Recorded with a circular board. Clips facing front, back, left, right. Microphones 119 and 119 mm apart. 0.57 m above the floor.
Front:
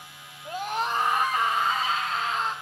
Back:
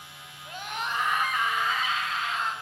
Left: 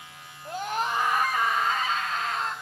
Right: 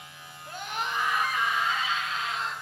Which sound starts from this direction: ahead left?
A scream, at 0.5 s.